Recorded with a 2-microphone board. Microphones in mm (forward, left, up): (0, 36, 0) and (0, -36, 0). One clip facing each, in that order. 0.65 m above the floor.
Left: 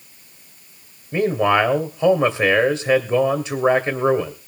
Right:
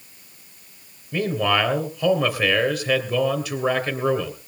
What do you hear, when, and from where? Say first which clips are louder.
1.1 s a man speaking: left 4 dB; 25° left (ahead or behind), 2.5 m